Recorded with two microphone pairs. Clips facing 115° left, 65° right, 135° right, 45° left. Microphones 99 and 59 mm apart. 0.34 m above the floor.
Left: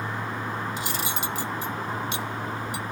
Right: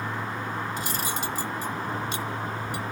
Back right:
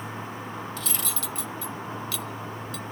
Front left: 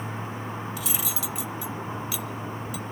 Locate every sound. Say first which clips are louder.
0.8 s cutlery clinking: even, front left 1 dB; 35° right, 0.8 m